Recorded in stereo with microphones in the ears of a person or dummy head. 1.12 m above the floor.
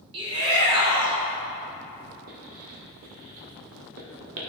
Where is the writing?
55° right (ahead or behind), 1.5 m.